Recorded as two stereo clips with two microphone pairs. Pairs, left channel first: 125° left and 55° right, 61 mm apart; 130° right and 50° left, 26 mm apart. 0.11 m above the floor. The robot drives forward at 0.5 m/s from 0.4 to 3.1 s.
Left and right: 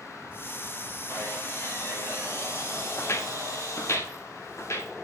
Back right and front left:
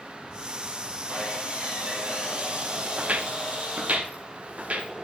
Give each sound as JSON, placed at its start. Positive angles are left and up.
{"t": 1.1, "sound": "sawing", "azimuth_deg": 70, "distance_m": 3.5}
{"t": 3.0, "sound": "footsteps", "azimuth_deg": 75, "distance_m": 1.3}